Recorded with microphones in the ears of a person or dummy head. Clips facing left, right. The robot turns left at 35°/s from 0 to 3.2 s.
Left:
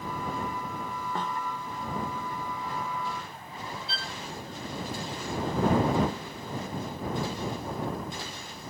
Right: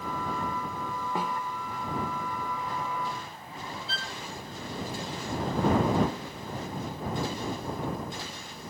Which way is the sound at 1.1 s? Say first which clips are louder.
Right 1 dB; 5° right (ahead or behind).